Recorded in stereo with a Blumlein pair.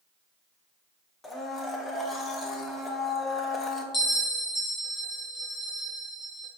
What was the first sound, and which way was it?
A blender, 15° left.